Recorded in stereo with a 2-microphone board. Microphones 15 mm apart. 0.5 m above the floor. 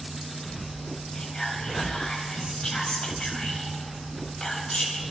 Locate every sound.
1.1 s whispering: 65° left (ahead or behind), 3.5 m